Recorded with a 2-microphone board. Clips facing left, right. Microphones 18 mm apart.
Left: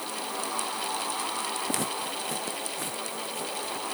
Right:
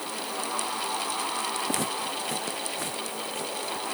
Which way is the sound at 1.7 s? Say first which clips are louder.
Right 1 dB; 5° right (ahead or behind).